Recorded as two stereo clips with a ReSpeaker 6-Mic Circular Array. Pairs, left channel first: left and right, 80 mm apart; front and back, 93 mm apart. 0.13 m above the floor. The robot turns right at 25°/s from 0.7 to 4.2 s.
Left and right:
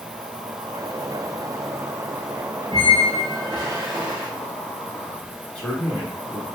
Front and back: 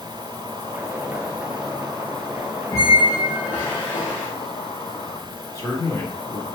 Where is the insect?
65° right, 0.9 m; by 6.5 s 25° left, 0.9 m.